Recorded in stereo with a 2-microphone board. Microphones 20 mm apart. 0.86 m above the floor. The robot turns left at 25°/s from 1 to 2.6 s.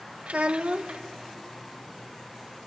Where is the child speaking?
75° right (ahead or behind), 0.9 m.